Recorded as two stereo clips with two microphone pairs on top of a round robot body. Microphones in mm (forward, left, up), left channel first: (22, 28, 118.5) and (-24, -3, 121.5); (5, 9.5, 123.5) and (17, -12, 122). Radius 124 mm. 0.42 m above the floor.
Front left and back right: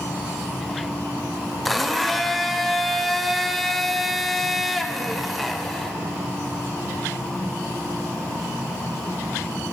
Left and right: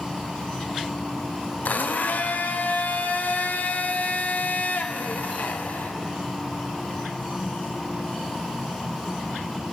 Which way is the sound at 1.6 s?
120° left.